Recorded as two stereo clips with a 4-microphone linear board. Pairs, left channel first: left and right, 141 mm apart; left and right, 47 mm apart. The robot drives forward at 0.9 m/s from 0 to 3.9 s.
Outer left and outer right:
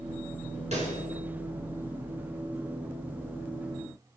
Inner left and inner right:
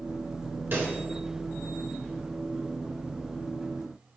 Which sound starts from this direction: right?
A pop, at 0.7 s.